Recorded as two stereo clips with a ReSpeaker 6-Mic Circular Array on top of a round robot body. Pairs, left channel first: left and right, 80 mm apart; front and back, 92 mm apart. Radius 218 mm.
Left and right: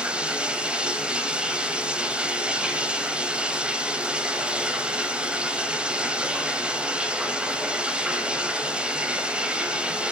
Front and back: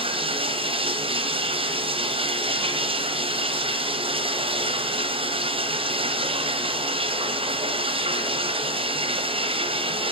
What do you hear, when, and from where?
0.0 s running water: 170° right, 1.4 m